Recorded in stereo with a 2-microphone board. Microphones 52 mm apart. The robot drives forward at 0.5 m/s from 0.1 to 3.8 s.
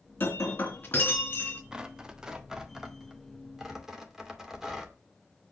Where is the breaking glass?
45° left (ahead or behind), 3 m; by 1.6 s 35° left (ahead or behind), 3.5 m.